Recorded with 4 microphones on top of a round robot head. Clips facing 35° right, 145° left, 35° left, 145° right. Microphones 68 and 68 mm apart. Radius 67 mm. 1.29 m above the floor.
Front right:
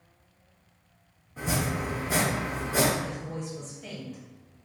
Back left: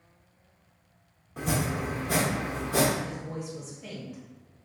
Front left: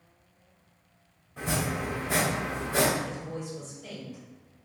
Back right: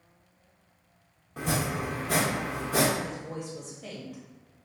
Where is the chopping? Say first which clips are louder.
Even, back right 1 dB; straight behind, 0.8 m.